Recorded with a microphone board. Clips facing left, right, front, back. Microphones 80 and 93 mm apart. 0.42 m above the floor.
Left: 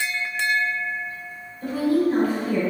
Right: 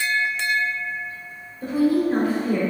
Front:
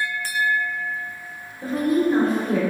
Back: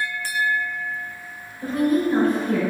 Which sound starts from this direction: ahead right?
A woman speaking, at 1.6 s.